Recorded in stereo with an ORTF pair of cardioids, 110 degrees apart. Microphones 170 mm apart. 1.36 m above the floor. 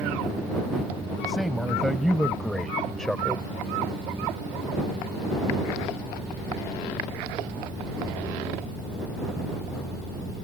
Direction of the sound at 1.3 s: Straight ahead.